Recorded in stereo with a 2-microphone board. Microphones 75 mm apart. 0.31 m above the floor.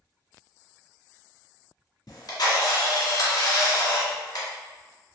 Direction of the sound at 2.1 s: 70° left (ahead or behind).